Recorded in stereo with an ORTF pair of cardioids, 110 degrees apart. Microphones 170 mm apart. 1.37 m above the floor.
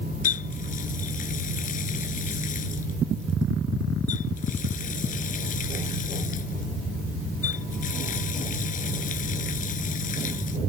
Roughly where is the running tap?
Ahead left.